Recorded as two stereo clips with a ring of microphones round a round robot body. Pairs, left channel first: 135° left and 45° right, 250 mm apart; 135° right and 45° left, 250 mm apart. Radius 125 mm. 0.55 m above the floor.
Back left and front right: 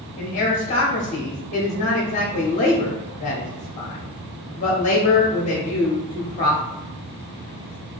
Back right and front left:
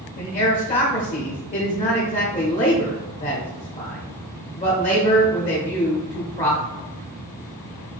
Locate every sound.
0.2 s a man speaking: straight behind, 0.8 m